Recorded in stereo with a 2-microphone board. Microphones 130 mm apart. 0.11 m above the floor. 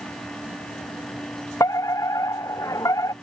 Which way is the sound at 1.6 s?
25° left (ahead or behind).